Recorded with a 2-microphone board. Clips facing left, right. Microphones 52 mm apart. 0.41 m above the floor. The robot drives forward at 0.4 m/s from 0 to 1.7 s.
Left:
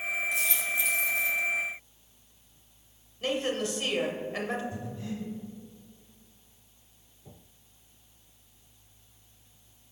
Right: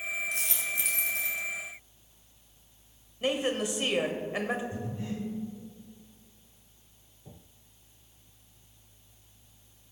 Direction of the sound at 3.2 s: 15° right (ahead or behind).